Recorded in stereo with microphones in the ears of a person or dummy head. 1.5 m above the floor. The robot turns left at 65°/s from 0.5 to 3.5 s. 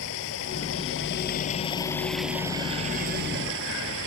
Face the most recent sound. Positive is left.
turn(degrees=-85)